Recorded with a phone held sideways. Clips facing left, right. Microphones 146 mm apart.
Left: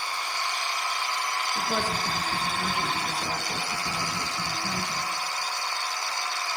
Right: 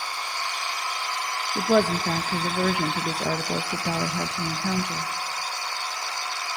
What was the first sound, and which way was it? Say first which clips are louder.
A woman speaking: right 10 dB; 70° right (ahead or behind).